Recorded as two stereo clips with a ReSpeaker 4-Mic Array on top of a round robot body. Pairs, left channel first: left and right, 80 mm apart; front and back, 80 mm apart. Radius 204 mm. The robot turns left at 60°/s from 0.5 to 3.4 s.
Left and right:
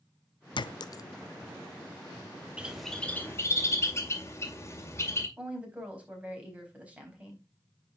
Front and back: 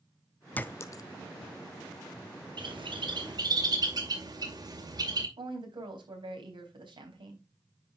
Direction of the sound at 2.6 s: 165° right.